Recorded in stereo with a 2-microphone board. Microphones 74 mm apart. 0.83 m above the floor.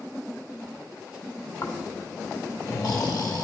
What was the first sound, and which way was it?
Snoring, 60° left (ahead or behind).